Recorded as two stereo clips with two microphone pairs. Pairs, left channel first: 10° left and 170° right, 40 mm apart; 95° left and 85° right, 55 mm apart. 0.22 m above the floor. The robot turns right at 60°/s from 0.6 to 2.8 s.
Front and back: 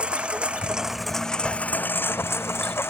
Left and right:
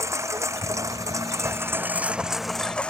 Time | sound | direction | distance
0.0 | a lawn mower | 110° right | ?